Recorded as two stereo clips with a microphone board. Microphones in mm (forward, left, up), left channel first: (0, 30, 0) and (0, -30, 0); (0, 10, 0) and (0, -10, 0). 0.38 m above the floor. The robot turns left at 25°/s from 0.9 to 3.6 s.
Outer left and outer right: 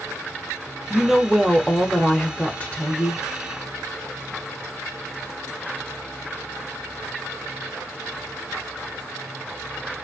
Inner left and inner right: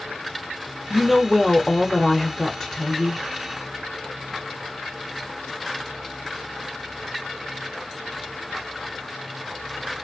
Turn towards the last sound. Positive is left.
turn(degrees=115)